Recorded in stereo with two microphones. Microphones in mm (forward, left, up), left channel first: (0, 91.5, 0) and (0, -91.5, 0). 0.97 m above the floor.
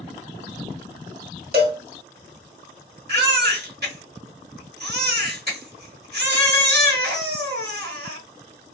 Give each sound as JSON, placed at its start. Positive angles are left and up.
{"t": 1.5, "sound": "a cowbell", "side_deg": -55, "distance_m": 1.1}
{"t": 3.1, "sound": "a baby crying", "side_deg": -65, "distance_m": 1.2}